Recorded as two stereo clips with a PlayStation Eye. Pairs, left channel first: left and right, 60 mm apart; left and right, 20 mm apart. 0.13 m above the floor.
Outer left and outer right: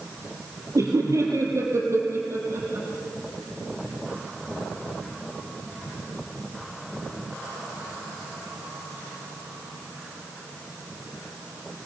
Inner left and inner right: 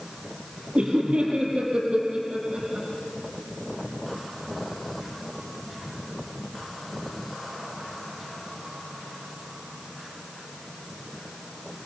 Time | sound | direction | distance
0.8 | laughter | 65° right (ahead or behind) | 3 m